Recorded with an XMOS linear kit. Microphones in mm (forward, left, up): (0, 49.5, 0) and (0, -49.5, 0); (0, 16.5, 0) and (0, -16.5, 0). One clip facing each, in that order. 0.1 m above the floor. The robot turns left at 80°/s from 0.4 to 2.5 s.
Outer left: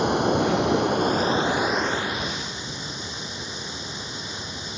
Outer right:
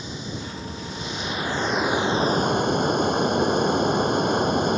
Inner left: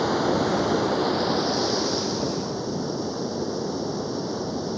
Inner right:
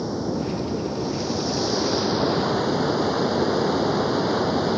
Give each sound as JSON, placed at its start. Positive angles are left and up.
{"t": 0.0, "sound": "running water", "azimuth_deg": 105}